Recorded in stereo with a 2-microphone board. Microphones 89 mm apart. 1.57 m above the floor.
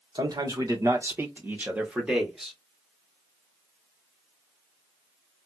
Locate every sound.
0.1 s a man speaking: 50° right (ahead or behind), 1.6 m; by 2.6 s centre (ahead or behind), 1.9 m